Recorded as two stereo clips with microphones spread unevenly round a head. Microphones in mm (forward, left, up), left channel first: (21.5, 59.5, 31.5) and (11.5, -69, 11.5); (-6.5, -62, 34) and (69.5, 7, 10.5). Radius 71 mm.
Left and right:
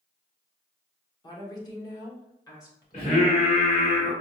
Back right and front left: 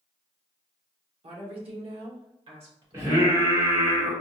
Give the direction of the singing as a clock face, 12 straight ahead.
8 o'clock.